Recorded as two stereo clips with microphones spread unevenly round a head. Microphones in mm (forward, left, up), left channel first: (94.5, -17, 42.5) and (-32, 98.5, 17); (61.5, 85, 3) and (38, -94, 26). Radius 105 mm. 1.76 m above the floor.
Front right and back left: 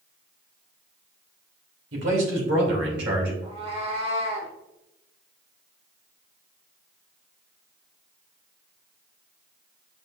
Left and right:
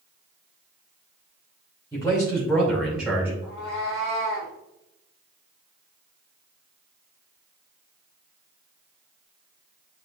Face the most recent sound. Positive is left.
turn(degrees=125)